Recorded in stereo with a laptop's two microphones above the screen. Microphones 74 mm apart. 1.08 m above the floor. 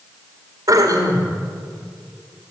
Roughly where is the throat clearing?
Right.